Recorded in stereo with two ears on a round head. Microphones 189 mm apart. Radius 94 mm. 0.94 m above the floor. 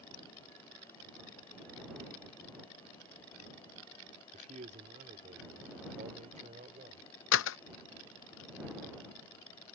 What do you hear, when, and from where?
4.3 s a man speaking: 40° right (ahead or behind); by 7.1 s 35° right (ahead or behind)
7.3 s a door slam: 65° left (ahead or behind)